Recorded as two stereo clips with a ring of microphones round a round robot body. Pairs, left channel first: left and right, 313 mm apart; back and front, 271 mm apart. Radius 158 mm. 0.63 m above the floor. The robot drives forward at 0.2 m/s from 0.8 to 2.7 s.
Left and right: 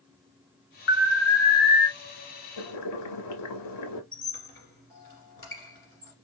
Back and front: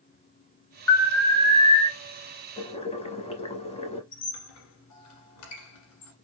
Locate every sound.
0.9 s an alarm: 100° left, 1.2 m; by 1.9 s 115° left, 1.3 m
2.6 s boiling: 110° left, 0.7 m; by 4.0 s 115° left, 0.7 m
4.1 s a squeak: 170° left, 1.6 m